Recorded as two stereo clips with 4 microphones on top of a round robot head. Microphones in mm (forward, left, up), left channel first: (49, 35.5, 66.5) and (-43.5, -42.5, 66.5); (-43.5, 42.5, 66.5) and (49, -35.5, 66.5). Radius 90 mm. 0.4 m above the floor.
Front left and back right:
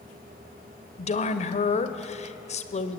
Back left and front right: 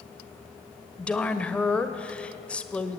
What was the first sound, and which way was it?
A woman speaking, 60° left.